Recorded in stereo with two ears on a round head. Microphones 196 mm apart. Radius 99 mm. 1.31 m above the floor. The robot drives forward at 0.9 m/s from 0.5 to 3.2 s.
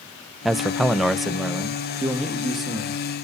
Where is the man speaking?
Centre (ahead or behind), 0.7 m.